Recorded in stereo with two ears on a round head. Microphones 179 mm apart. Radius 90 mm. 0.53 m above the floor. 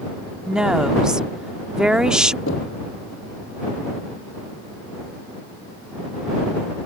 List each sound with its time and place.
0.5 s a woman speaking: 5° right (ahead or behind)
2.5 s knocking: 65° left (ahead or behind)